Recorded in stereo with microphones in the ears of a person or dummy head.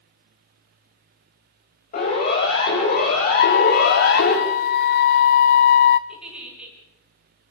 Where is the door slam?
No door slam in this recording.